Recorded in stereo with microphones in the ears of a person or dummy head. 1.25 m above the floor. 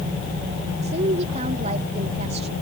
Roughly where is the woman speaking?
Right.